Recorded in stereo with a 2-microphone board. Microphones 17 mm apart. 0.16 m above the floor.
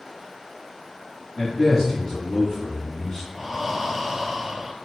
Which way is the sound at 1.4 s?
35° left (ahead or behind).